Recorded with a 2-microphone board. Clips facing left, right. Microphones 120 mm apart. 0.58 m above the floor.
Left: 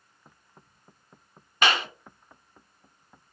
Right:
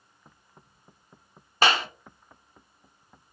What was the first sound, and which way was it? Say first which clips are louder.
A clap: right 2 dB; 35° right (ahead or behind).